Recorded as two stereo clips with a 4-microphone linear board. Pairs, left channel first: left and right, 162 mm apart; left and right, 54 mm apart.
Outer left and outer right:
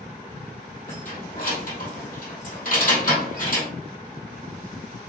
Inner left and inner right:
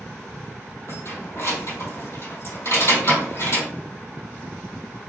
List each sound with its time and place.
0.9 s keys jangling: 60° left (ahead or behind), 2.5 m